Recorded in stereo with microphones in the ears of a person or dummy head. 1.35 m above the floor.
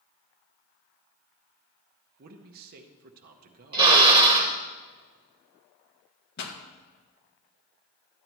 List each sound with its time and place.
2.2 s a man speaking: 50° right (ahead or behind), 0.7 m
3.7 s a drill: 25° right (ahead or behind), 0.9 m
6.4 s a pop: 55° left (ahead or behind), 1.5 m